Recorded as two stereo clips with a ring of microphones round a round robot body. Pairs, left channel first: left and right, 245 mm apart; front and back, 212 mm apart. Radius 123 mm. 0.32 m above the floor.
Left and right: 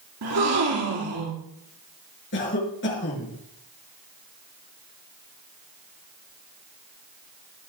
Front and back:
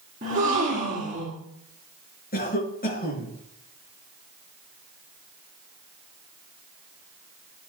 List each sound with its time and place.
0.2 s a gasp: 120° right, 4 m
2.3 s a cough: 45° left, 4.5 m